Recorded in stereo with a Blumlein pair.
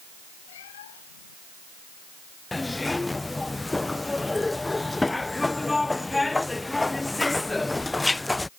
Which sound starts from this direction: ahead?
A zipper, at 2.5 s.